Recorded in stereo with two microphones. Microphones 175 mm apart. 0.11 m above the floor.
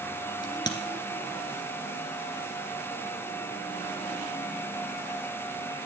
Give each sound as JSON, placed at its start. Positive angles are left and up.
{"t": 0.4, "sound": "a crack", "side_deg": 25, "distance_m": 1.9}